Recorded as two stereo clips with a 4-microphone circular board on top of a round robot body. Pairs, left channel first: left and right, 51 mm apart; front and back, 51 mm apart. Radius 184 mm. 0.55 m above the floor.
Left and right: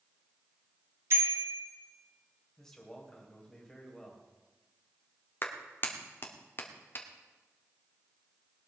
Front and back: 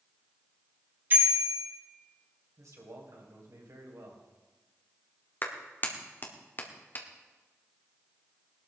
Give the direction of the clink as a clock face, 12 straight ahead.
No clink in this recording.